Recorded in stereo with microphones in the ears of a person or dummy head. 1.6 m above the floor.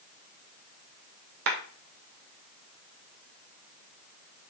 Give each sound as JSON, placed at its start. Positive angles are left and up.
{"t": 1.5, "sound": "a clap", "side_deg": -65, "distance_m": 1.4}